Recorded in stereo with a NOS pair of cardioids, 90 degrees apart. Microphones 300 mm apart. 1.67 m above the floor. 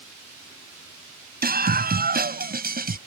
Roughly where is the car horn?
No car horn in this recording.